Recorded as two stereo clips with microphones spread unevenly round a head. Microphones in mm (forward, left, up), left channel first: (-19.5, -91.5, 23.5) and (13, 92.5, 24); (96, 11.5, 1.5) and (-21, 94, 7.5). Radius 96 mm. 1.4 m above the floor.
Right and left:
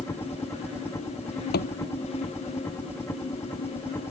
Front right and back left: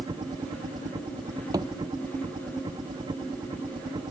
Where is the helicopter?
170° right.